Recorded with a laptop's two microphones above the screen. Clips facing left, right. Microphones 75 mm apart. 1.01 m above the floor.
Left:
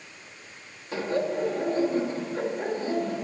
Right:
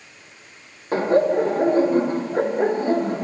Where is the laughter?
45° right (ahead or behind), 1.6 m.